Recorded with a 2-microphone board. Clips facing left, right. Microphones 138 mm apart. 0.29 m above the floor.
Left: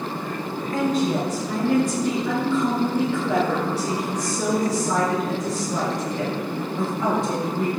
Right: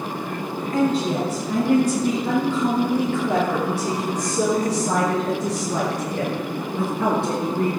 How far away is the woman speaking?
About 4.5 m.